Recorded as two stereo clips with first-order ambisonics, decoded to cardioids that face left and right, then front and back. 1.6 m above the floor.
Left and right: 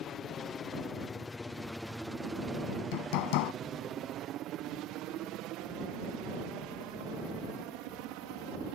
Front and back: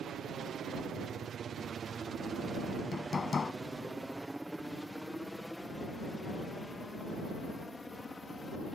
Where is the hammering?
75° left.